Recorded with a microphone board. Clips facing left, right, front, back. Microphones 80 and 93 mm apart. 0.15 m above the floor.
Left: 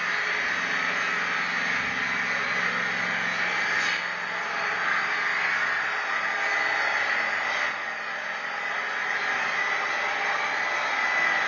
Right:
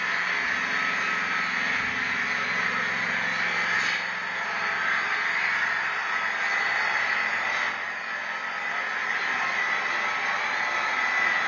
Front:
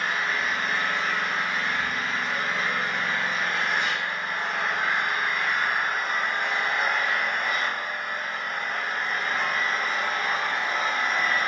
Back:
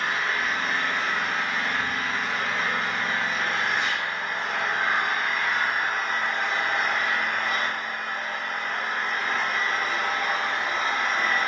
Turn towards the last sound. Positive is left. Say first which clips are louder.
# even, even
turn(degrees=75)